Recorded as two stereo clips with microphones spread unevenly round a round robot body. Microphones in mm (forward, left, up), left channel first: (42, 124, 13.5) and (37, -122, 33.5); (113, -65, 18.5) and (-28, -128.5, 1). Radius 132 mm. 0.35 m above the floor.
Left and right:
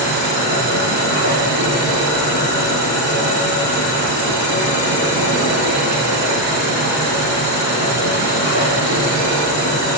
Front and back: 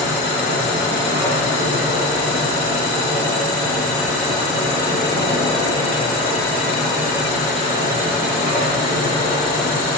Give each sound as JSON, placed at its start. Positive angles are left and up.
{"t": 0.0, "sound": "an insect", "azimuth_deg": 115, "distance_m": 8.0}